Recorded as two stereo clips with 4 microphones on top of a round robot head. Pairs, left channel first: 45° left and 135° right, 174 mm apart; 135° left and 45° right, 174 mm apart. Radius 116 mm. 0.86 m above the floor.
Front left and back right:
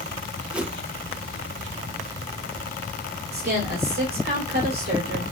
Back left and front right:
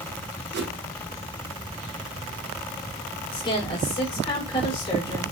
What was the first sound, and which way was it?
A whoosh, 55° right.